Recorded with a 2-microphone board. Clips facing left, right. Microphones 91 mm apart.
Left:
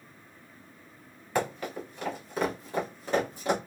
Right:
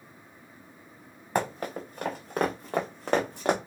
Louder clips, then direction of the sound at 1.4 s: Right 1 dB; 35° right (ahead or behind).